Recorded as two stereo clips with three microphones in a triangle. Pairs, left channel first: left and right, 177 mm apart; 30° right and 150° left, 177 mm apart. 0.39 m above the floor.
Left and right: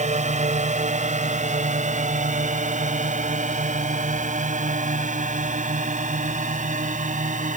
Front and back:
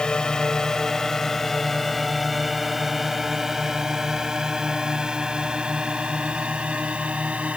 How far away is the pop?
I don't hear a pop.